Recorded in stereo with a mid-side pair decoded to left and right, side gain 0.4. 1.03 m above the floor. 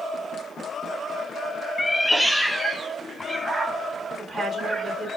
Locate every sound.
1.8 s a cat meowing: 10° left, 0.6 m; by 5.2 s 25° right, 2.5 m
4.2 s a woman speaking: 55° right, 2.5 m